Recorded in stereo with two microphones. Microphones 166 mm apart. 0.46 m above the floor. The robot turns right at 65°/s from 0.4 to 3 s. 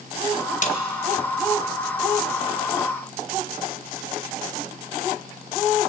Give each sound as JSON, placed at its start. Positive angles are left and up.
{"t": 0.6, "sound": "a snare drum", "side_deg": 60, "distance_m": 2.5}